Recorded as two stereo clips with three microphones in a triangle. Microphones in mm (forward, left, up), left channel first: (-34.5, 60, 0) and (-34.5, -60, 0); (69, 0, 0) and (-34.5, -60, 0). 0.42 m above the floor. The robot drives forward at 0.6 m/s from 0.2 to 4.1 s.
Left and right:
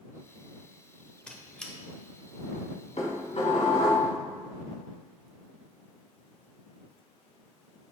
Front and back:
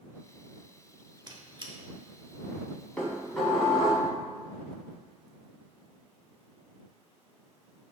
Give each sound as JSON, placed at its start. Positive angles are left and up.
{"t": 1.3, "sound": "a squeak", "azimuth_deg": 170, "distance_m": 0.8}
{"t": 3.0, "sound": "dishes clattering", "azimuth_deg": 110, "distance_m": 2.0}